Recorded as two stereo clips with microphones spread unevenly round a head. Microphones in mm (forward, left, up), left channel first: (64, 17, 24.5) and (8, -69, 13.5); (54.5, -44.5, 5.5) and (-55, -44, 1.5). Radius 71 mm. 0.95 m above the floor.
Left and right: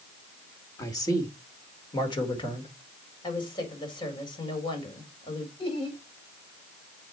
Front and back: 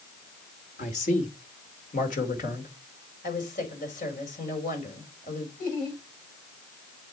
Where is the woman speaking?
15° left, 4.5 m.